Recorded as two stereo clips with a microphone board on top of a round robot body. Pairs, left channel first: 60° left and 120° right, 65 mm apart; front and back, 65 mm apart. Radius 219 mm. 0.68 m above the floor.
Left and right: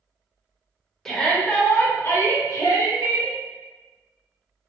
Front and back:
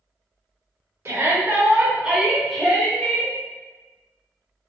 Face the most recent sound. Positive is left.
turn(degrees=70)